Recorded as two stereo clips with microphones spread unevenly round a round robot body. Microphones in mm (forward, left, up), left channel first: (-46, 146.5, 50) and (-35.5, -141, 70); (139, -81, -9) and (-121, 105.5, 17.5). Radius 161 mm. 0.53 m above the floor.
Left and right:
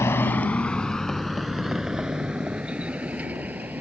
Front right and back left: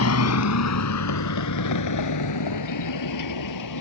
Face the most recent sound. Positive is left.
turn(degrees=-5)